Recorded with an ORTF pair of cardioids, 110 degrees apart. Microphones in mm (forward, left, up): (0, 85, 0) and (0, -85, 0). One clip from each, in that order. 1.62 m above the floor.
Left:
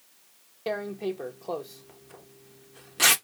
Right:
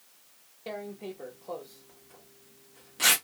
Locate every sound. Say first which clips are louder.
0.7 s tearing paper: left 8 dB; 30° left, 0.5 m